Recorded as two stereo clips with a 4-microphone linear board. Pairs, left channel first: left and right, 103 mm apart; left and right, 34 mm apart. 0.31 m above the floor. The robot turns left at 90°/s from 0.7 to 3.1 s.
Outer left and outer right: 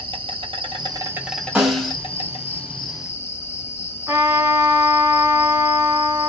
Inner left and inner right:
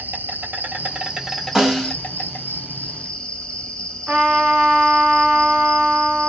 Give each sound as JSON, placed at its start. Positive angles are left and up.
{"t": 0.0, "sound": "an insect", "azimuth_deg": -120, "distance_m": 0.9}
{"t": 1.6, "sound": "a snare drum", "azimuth_deg": -165, "distance_m": 1.7}
{"t": 4.1, "sound": "a trumpet", "side_deg": -25, "distance_m": 1.7}